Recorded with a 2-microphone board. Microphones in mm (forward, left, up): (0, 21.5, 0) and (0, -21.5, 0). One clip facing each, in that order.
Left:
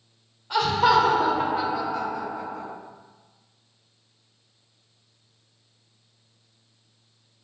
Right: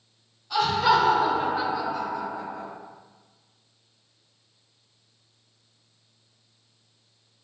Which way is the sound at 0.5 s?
40° left (ahead or behind).